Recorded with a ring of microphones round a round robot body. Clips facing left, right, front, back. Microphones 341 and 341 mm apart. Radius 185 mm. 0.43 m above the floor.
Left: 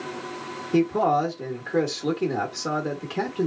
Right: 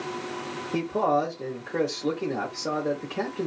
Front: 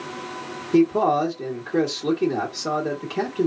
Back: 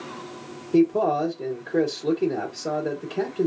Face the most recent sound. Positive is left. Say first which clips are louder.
# left 4 dB, front 1 dB
turn(degrees=50)